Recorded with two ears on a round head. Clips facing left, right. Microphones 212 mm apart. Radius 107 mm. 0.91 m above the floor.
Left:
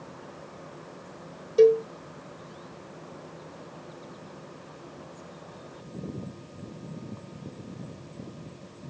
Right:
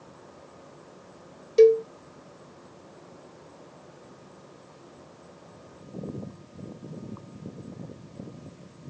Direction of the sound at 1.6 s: 30° right (ahead or behind).